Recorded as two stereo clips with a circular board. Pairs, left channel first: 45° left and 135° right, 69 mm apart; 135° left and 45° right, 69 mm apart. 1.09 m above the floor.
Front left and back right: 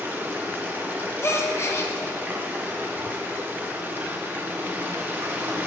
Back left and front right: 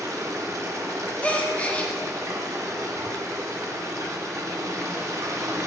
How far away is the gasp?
About 0.5 m.